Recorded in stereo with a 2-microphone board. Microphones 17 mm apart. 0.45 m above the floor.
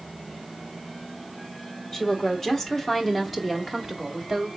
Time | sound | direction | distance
1.9 | a woman speaking | 30° left (ahead or behind) | 1.1 m